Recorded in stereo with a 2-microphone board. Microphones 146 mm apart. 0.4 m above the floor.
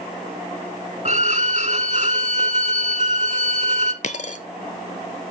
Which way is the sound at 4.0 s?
55° left (ahead or behind).